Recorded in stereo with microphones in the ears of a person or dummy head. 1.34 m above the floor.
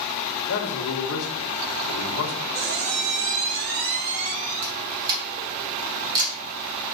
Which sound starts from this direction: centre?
A camera shutter, at 4.6 s.